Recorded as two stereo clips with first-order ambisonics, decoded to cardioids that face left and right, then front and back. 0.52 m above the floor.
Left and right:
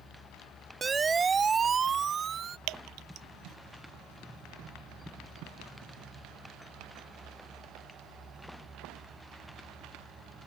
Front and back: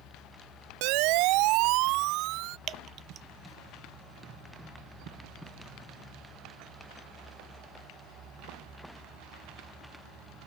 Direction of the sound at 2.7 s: 120° right.